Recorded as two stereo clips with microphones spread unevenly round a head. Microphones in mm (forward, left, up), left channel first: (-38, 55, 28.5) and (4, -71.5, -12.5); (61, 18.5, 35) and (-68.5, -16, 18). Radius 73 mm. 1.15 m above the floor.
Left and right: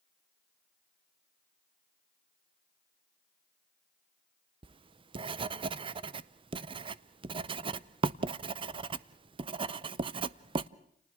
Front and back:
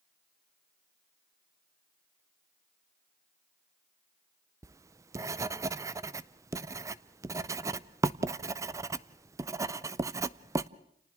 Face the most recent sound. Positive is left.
turn(degrees=-105)